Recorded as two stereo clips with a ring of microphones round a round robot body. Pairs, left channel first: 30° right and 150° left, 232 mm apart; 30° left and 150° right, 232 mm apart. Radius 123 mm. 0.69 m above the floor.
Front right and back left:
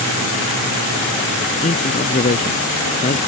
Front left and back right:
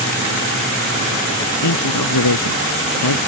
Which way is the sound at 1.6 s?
30° left.